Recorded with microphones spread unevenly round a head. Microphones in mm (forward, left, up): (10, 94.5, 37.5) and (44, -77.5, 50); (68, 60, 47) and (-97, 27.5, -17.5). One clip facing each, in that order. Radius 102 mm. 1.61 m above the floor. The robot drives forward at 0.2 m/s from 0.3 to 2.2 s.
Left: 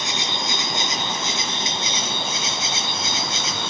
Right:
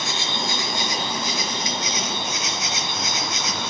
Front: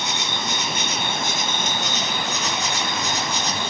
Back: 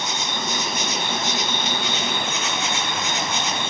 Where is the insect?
40° left, 1.0 m; by 3.7 s 70° left, 0.8 m.